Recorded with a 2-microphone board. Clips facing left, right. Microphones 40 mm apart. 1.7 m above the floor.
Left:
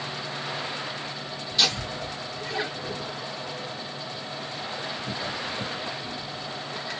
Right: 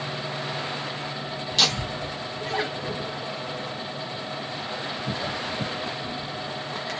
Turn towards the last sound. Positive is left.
turn(degrees=-70)  # may be behind; listen again after turning